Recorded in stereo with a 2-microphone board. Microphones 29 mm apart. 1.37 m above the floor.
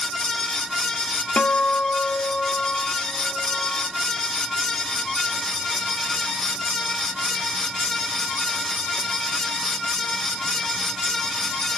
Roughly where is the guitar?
Left.